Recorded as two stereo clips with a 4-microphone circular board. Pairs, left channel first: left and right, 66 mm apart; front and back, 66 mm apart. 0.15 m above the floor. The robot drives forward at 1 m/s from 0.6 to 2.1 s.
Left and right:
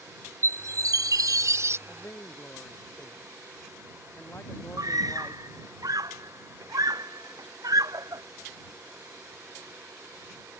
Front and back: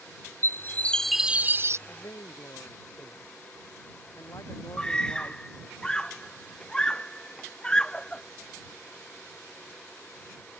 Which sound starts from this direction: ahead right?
A chime, at 0.4 s.